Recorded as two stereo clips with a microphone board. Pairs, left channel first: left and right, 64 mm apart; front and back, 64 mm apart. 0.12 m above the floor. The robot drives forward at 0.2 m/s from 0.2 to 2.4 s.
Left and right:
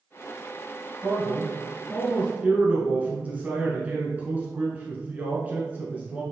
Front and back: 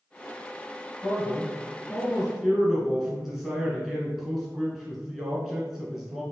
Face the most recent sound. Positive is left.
turn(degrees=-105)